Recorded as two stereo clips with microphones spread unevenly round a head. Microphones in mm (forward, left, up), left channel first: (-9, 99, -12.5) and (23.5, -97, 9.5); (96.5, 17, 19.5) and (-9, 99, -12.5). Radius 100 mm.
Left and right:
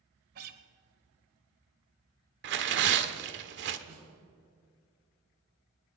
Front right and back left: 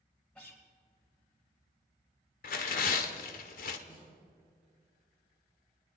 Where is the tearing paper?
50° right, 1.0 m.